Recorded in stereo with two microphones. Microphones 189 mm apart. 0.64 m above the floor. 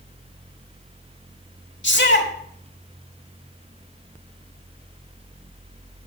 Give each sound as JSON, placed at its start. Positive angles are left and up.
{"t": 1.8, "sound": "a shout", "side_deg": 75, "distance_m": 2.0}